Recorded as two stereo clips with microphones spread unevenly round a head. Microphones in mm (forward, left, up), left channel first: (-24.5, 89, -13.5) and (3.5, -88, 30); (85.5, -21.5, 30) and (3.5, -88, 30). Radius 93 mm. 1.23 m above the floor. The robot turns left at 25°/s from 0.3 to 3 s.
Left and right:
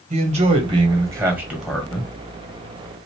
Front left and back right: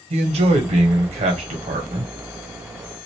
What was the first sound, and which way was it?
A man speaking, 135° right.